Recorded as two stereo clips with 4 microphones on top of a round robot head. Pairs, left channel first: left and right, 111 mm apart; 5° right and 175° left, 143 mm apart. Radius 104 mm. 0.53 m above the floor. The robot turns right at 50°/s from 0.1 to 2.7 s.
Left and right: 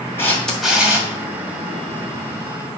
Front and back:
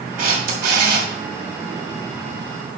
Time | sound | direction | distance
0.2 | a camera shutter | 160° left | 2.5 m